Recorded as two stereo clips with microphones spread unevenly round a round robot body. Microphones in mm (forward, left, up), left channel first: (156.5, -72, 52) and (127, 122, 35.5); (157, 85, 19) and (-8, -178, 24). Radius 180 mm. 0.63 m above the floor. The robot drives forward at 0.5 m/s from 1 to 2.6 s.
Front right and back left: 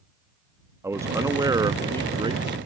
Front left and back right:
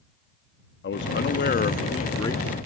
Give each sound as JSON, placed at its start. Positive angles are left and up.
{"t": 0.8, "sound": "a man speaking", "azimuth_deg": 35}